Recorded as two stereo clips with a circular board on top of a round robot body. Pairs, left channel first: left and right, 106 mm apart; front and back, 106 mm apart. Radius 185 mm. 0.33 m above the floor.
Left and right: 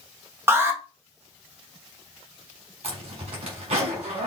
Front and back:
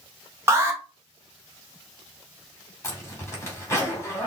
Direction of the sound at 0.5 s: 140° right.